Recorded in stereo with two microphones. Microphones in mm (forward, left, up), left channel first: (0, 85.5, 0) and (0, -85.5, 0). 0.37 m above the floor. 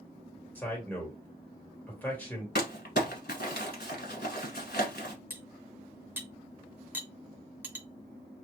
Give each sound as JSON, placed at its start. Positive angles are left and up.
{"t": 0.6, "sound": "a man speaking", "side_deg": 10, "distance_m": 1.6}
{"t": 2.5, "sound": "crumpling", "side_deg": 70, "distance_m": 1.0}
{"t": 5.3, "sound": "cutlery clinking", "side_deg": -10, "distance_m": 0.6}